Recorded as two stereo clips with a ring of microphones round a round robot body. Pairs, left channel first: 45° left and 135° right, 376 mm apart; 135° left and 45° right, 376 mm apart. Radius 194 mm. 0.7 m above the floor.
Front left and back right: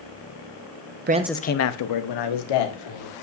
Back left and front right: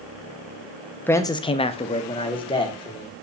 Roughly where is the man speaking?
Behind right.